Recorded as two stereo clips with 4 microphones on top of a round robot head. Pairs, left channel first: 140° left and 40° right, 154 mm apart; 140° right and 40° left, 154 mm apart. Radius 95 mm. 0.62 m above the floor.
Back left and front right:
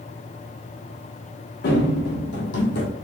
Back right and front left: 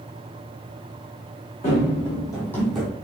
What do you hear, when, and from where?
1.6 s running footsteps: 165° left, 1.9 m; by 2.9 s 120° left, 1.0 m